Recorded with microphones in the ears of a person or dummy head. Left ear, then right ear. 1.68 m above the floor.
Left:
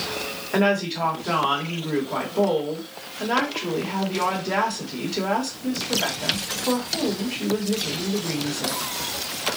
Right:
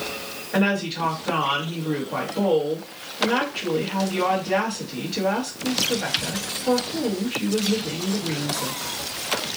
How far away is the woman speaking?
About 1.0 m.